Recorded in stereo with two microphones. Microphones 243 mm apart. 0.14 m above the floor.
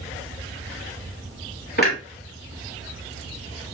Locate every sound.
1.8 s a clunk: 40° left (ahead or behind), 2.5 m